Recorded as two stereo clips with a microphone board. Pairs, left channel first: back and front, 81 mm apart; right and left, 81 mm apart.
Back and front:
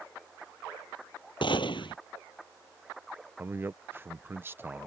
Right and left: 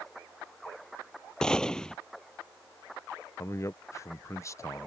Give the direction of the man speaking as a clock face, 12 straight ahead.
2 o'clock.